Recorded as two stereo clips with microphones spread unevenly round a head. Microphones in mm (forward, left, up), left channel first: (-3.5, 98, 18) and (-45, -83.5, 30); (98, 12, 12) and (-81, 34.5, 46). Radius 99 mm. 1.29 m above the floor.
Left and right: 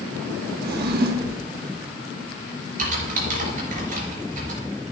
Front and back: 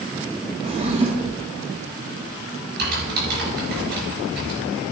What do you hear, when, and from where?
0.6 s a drawer: 135° right, 1.2 m
2.8 s typing on a keyboard: 145° right, 5 m